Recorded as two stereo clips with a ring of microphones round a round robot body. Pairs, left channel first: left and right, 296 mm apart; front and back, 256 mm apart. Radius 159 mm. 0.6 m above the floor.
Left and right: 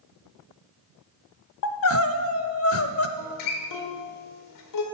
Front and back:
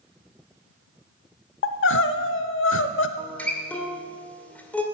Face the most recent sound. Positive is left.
turn(degrees=85)